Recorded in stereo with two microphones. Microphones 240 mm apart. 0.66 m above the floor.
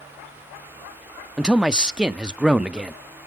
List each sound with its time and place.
1.4 s a man speaking: 5° right (ahead or behind), 0.7 m